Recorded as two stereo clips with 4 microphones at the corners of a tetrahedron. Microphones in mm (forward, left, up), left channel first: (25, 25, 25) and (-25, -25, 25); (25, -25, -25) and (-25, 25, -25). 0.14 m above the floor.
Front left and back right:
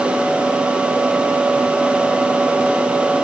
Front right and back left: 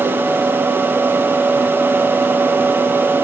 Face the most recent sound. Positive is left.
No sound to turn to.